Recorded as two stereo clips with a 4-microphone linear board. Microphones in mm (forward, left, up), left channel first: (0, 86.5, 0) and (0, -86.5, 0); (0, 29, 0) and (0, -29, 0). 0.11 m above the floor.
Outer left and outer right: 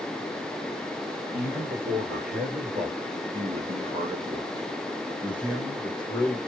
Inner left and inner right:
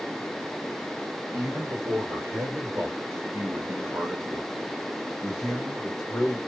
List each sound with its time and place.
1.3 s a man speaking: 60° right (ahead or behind), 2.5 m; by 6.4 s 15° left (ahead or behind), 1.4 m